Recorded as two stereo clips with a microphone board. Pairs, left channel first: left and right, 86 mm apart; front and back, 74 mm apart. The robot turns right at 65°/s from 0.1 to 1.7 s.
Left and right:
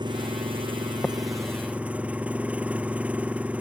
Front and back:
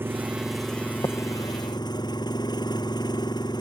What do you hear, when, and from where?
0.0 s an engine running: 120° right; by 3.6 s 15° right
1.0 s tapping: 20° left; by 1.1 s 25° left